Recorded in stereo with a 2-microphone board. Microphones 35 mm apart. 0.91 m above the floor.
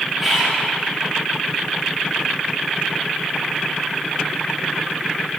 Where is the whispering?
10° right (ahead or behind), 0.9 m.